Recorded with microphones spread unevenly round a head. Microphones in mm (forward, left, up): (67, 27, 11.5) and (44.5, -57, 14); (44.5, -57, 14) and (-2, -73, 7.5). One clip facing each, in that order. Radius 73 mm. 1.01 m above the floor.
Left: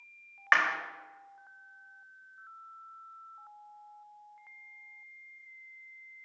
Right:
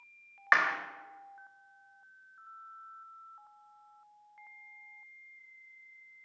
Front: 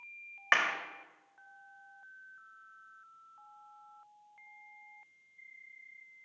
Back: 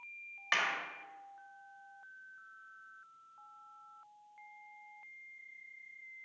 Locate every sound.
0.5 s a clap: 25° right, 1.1 m